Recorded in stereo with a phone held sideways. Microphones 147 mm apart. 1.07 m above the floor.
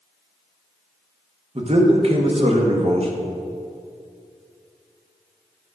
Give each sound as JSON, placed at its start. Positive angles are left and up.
{"t": 1.6, "sound": "a man speaking", "side_deg": -45, "distance_m": 1.1}